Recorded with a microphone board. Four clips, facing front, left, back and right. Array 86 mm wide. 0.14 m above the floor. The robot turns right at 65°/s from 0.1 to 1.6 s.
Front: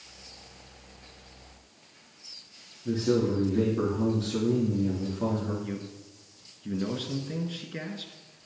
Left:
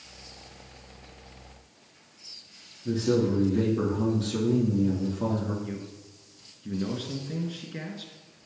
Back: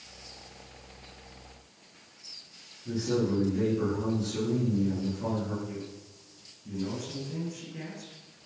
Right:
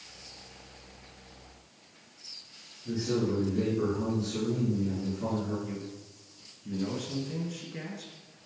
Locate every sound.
2.9 s a man speaking: 50° left, 4 m
5.6 s a man speaking: 25° left, 1.8 m